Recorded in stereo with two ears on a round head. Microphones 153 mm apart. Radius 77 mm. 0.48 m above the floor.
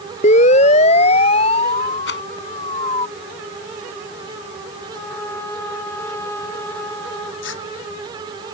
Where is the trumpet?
15° left (ahead or behind).